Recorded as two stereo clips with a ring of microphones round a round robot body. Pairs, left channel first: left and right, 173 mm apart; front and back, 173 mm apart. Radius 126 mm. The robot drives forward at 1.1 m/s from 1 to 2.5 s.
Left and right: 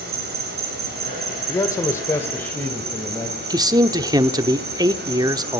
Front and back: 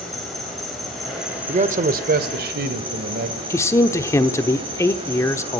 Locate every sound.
0.0 s an insect: 90° right, 4 m; by 5.6 s 115° right, 4 m
1.5 s a man speaking: 155° left, 1.2 m; by 3.4 s 170° left, 2 m
3.5 s a man speaking: 55° right, 0.9 m